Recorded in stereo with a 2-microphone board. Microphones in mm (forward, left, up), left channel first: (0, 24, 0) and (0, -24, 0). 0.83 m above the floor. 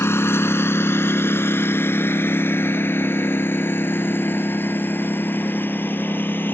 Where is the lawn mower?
60° left (ahead or behind); by 6.5 s 45° left (ahead or behind).